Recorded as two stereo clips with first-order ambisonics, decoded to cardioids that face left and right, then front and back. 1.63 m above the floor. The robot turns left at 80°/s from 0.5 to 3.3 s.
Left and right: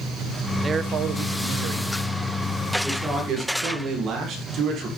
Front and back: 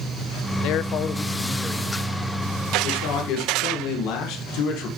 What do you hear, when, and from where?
0.6 s a man speaking: 15° right, 0.8 m; by 1.9 s 120° right, 0.8 m
2.8 s a man speaking: straight ahead, 2.0 m; by 4.9 s 35° right, 2.0 m